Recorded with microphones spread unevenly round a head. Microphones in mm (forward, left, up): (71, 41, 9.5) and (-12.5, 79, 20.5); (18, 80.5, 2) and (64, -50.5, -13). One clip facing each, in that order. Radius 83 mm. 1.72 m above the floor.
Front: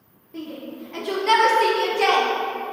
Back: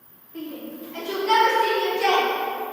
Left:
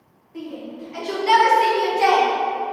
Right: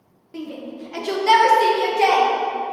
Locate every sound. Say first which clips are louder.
0.3 s a shout: even, right 1 dB; 75° right, 1.7 m; by 2.3 s 5° left, 1.9 m